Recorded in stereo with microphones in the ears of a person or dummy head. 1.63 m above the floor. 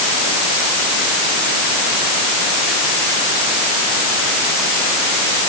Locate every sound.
Only background noise.